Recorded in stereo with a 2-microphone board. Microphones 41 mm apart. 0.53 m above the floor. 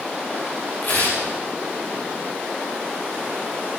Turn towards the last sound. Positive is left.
turn(degrees=45)  # may be behind; listen again after turning